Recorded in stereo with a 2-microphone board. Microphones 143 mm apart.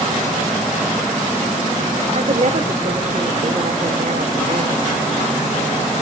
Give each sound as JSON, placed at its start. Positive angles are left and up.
{"t": 2.1, "sound": "a woman speaking", "side_deg": -55, "distance_m": 2.0}